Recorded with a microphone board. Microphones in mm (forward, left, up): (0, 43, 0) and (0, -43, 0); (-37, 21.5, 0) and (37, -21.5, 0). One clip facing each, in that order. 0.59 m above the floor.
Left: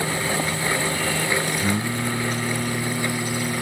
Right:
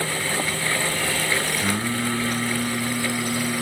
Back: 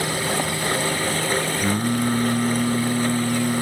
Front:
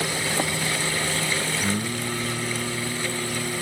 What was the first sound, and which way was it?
Singing, 165° right.